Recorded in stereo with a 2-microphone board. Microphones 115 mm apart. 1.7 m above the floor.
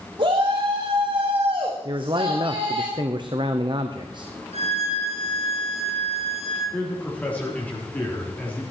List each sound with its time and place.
0.2 s a shout: 50° right (ahead or behind), 2.5 m
1.9 s a man speaking: 45° right (ahead or behind), 1.0 m
4.5 s a violin: 65° right (ahead or behind), 3 m
6.7 s a man speaking: 15° left (ahead or behind), 3.5 m